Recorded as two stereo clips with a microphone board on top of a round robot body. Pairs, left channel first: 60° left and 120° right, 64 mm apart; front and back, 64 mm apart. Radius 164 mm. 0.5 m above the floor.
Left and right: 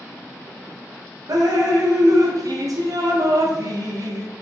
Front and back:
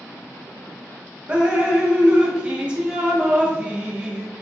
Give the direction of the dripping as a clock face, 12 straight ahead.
4 o'clock.